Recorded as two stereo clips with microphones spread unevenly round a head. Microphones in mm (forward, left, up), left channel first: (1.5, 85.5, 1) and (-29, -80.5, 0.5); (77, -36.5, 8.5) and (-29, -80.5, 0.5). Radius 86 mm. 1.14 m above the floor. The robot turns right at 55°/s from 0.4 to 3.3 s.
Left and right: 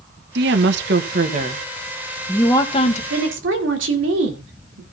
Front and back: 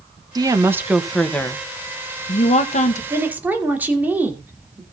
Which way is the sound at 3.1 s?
95° right.